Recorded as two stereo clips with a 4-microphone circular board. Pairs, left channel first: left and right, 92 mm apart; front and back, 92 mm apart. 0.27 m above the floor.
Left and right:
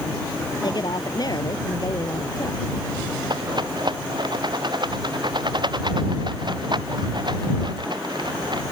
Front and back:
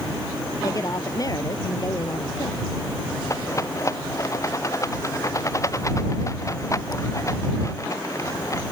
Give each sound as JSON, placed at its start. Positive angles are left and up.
{"t": 0.6, "sound": "a woman speaking", "azimuth_deg": 50}
{"t": 3.3, "sound": "a rattle", "azimuth_deg": -55}